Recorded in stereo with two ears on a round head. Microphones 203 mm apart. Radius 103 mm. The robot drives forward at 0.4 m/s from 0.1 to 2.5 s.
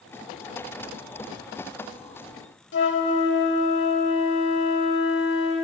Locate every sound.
2.7 s a flute: 50° left (ahead or behind), 0.6 m